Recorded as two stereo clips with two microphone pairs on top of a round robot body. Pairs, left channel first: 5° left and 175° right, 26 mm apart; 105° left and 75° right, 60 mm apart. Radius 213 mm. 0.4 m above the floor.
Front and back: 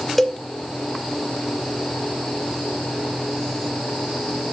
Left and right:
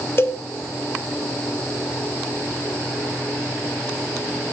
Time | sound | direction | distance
0.2 | a cowbell | 75° left | 1.8 m